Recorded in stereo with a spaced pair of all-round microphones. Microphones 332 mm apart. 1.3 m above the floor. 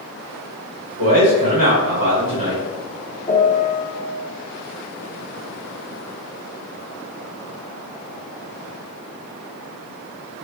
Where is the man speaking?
75° right (ahead or behind), 1.4 m.